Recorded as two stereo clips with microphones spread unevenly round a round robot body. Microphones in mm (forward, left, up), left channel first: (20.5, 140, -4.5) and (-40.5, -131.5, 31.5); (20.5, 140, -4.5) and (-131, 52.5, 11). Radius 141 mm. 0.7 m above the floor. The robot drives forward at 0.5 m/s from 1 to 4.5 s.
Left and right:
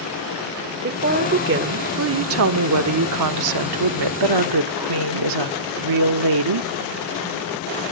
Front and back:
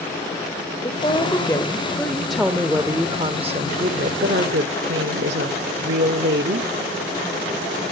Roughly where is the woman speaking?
Ahead right.